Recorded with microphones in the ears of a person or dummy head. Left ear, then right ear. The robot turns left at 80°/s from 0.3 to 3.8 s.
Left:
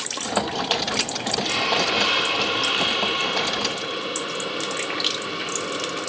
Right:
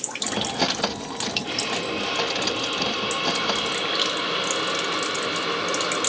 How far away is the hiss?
About 1.3 m.